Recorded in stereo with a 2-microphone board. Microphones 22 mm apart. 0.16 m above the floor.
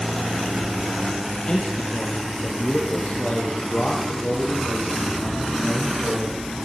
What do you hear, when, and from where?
1.5 s a man speaking: 35° left (ahead or behind), 5 m; by 6.7 s 60° left (ahead or behind), 9.5 m